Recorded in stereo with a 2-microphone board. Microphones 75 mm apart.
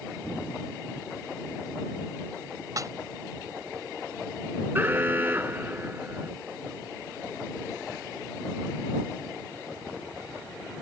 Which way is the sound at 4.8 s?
25° right (ahead or behind).